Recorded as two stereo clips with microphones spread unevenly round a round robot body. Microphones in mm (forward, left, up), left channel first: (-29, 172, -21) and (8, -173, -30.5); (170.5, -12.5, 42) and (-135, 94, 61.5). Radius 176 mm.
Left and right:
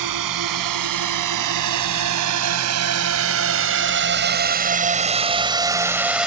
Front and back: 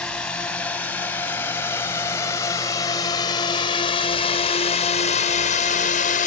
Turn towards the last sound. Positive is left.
turn(degrees=5)